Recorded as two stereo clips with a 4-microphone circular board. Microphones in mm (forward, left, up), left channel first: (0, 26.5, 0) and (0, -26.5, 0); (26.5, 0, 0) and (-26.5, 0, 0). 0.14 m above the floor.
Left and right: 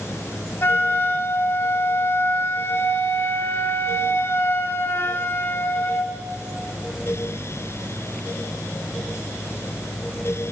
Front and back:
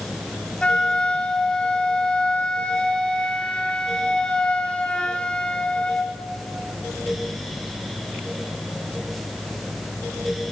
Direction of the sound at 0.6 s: 70° left.